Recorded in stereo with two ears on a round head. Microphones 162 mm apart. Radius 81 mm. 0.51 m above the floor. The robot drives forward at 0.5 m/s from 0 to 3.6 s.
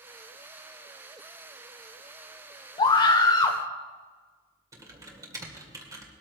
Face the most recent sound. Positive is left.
turn(degrees=-20)  # may be behind; listen again after turning